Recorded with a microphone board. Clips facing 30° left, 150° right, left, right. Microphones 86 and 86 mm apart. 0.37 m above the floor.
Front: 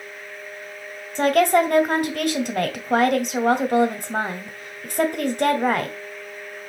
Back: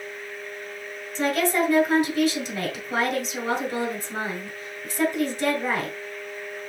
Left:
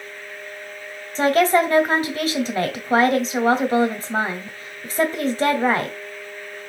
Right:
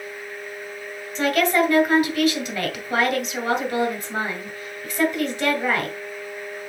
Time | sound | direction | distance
1.1 | a woman speaking | 40° left | 1.9 m